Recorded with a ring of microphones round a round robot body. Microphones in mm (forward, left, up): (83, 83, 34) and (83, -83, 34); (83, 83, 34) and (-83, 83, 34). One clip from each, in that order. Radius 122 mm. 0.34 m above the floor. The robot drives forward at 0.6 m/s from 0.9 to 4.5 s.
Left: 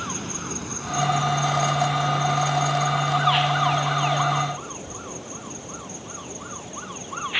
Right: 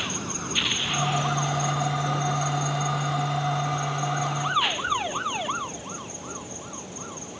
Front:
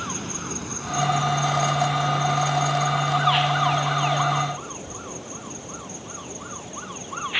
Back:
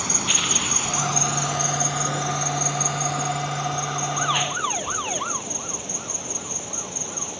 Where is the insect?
Straight behind.